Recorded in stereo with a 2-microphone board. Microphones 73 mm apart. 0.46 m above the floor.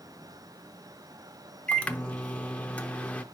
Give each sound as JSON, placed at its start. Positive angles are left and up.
{"t": 1.7, "sound": "a microwave", "side_deg": 15, "distance_m": 0.6}